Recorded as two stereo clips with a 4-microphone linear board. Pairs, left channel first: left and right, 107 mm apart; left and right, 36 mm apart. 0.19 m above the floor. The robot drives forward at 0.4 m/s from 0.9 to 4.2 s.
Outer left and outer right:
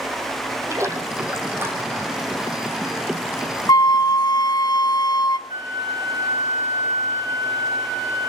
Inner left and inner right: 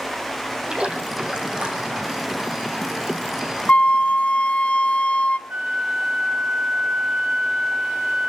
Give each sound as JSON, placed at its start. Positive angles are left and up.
{"t": 0.7, "sound": "a splash", "side_deg": -25, "distance_m": 2.0}
{"t": 3.7, "sound": "a flute", "side_deg": 40, "distance_m": 0.7}
{"t": 5.5, "sound": "a flute", "side_deg": -65, "distance_m": 3.0}